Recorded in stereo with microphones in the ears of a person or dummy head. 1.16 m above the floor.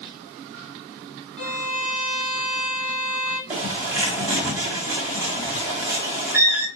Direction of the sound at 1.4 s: 70° left (ahead or behind).